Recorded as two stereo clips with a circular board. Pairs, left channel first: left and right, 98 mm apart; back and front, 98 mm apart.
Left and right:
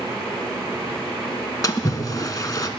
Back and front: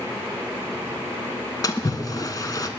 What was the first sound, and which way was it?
A splash, 135° left.